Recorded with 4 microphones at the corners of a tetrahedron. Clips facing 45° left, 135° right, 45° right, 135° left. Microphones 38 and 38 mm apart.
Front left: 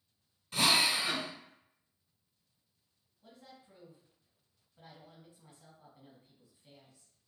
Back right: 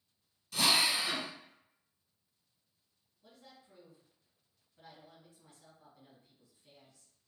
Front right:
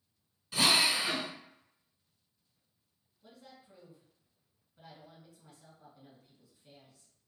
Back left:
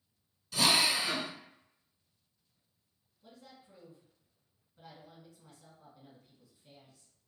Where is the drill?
10° left, 0.7 m.